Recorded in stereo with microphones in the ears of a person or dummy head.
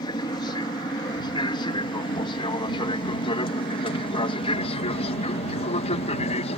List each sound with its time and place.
0.0 s an aircraft: 25° left (ahead or behind); by 6.6 s 40° left (ahead or behind)